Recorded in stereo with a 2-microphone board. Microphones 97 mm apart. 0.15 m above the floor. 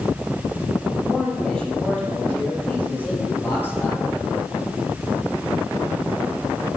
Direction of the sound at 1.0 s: 5° left (ahead or behind).